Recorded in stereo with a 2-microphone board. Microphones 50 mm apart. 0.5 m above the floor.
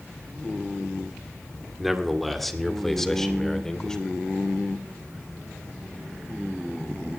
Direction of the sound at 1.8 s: Centre (ahead or behind).